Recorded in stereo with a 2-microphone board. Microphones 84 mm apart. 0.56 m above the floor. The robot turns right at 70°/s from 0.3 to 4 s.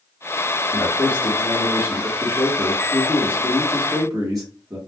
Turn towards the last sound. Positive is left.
turn(degrees=-100)